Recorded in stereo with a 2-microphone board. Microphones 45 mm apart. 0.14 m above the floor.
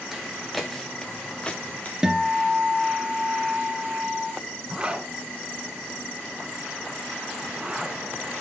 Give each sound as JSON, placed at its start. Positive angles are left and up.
{"t": 0.1, "sound": "footsteps", "side_deg": -5, "distance_m": 2.5}
{"t": 2.0, "sound": "a guitar", "side_deg": -10, "distance_m": 1.2}
{"t": 4.7, "sound": "a zipper", "side_deg": -20, "distance_m": 1.8}